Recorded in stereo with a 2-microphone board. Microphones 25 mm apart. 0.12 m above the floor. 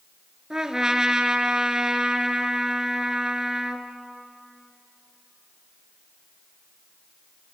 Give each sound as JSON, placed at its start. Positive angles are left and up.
{"t": 0.5, "sound": "a trumpet", "side_deg": -25, "distance_m": 0.8}